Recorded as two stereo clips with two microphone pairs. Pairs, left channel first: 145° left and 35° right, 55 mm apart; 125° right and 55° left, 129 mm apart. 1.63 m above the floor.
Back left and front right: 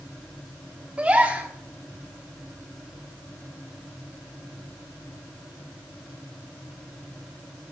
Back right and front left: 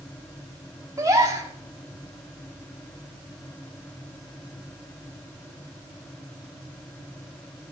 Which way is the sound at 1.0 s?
10° left.